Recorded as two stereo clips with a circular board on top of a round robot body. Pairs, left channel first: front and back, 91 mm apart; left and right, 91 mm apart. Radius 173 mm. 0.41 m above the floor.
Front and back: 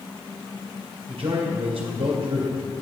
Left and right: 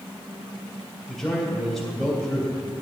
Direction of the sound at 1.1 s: Straight behind.